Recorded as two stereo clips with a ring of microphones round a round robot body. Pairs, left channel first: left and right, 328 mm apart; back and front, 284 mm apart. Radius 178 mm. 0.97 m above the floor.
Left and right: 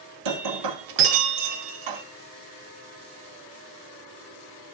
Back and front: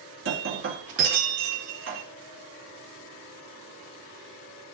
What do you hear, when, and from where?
0.2 s breaking glass: 55° right, 1.5 m